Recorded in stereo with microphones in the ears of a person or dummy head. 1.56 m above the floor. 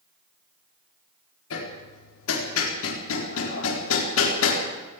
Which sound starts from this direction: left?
Hammering, at 1.5 s.